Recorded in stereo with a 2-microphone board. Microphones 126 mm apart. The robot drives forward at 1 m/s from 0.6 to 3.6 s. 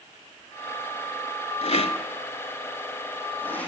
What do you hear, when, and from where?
1.6 s a rattle: 55° left (ahead or behind), 0.6 m; by 3.7 s 15° left (ahead or behind), 1.9 m